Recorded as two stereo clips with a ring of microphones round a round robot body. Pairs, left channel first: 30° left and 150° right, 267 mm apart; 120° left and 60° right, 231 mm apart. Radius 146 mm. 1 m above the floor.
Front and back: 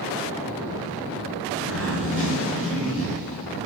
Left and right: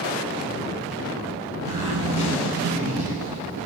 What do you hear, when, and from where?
1.6 s a zipper: 65° right, 3 m